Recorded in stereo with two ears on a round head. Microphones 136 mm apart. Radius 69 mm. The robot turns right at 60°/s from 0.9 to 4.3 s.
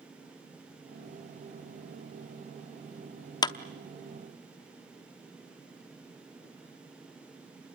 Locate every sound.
3.4 s a clap: 25° left (ahead or behind), 0.8 m